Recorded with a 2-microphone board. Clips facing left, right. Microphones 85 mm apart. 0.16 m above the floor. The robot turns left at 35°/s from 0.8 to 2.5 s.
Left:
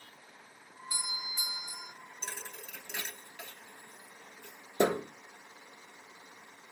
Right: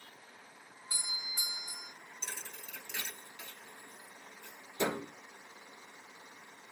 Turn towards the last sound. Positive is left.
turn(degrees=60)  # may be behind; listen again after turning